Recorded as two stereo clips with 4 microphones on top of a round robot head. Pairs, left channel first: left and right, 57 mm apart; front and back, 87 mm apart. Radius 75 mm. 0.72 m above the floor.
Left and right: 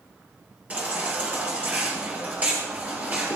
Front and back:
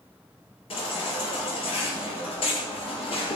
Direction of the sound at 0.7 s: 25° right.